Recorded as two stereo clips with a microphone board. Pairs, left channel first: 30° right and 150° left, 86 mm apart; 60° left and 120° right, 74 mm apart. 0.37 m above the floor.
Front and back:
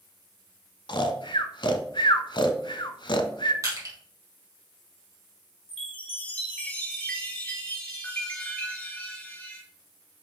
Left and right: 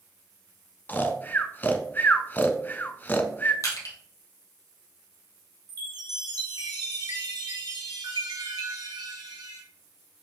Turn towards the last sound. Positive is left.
turn(degrees=-105)